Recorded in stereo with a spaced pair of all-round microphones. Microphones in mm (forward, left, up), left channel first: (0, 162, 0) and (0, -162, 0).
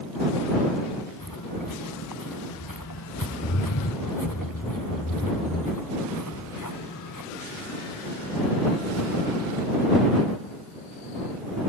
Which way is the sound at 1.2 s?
80° left.